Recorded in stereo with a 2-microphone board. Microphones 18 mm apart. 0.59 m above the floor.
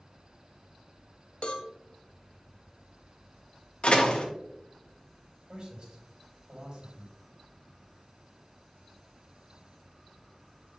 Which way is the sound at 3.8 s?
60° left (ahead or behind).